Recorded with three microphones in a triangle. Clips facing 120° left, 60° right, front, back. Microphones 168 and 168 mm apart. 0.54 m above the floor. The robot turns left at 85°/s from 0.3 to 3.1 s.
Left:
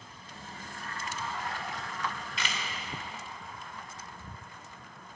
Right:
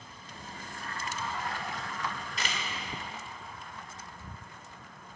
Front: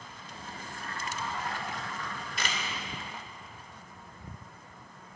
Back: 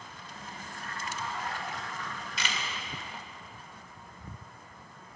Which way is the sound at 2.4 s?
20° right.